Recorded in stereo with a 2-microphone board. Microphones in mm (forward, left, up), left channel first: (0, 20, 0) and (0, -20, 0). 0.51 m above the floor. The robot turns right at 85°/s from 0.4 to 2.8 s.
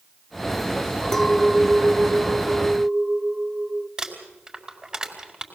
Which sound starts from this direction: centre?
Crumpling, at 4.0 s.